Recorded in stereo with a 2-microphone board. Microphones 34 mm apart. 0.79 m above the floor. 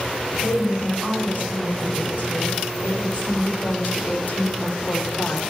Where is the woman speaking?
75° left (ahead or behind), 5 m.